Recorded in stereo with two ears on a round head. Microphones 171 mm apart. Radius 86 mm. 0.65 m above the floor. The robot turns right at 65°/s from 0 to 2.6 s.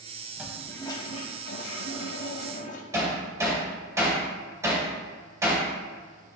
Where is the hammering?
15° right (ahead or behind), 2 m.